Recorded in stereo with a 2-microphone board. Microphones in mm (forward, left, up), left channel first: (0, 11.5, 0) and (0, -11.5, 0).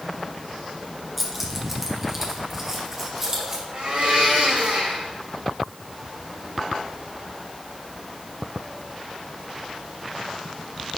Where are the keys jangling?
5° right (ahead or behind), 1.6 m; by 3.6 s 20° right (ahead or behind), 3 m.